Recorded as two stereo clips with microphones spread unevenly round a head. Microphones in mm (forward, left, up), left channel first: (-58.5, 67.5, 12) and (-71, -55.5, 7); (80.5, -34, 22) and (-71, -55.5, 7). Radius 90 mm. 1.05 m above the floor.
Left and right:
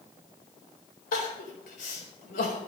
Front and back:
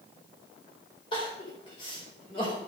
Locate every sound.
1.1 s crying: 75° left, 4.5 m